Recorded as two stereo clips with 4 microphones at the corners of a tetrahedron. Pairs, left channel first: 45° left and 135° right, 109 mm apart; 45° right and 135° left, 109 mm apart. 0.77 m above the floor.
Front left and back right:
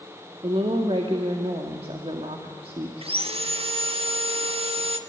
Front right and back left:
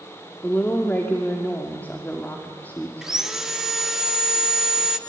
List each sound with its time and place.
0.4 s a woman speaking: 115° right, 1.8 m
3.0 s sawing: 140° right, 1.3 m